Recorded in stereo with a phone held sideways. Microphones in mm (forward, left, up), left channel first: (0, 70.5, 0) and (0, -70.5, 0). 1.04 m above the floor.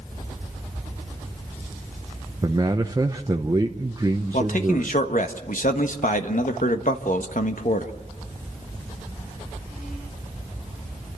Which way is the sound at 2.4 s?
25° right (ahead or behind).